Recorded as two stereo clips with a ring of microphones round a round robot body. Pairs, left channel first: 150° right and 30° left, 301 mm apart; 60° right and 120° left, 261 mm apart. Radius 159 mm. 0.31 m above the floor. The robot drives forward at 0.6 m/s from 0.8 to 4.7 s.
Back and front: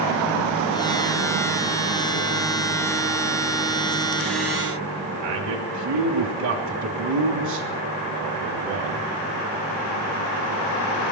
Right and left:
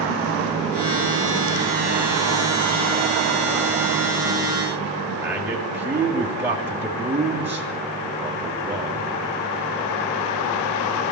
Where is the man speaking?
40° left, 3 m.